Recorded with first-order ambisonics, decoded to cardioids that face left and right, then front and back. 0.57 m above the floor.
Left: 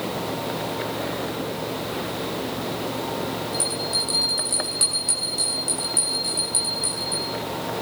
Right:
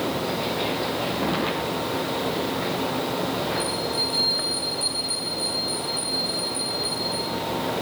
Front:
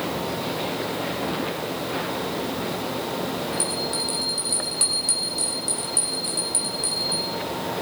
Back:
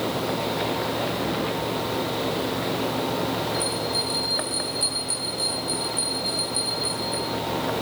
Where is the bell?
45° left, 5 m.